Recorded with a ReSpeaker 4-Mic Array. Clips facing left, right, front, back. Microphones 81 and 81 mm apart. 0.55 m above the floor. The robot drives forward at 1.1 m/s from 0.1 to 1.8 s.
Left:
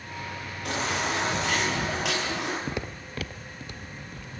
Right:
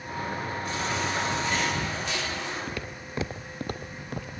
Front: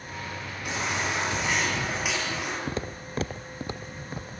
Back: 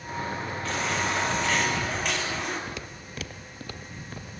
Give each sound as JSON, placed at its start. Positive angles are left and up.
{"t": 0.7, "sound": "a baby crying", "azimuth_deg": 75, "distance_m": 9.0}
{"t": 2.7, "sound": "footsteps", "azimuth_deg": 40, "distance_m": 0.7}